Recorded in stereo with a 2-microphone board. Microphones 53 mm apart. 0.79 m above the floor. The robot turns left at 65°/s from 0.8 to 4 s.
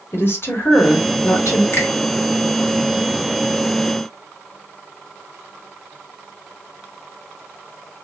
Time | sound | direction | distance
0.1 | a woman speaking | 130° left | 1.9 m
1.7 | a finger snap | 55° left (ahead or behind) | 1.4 m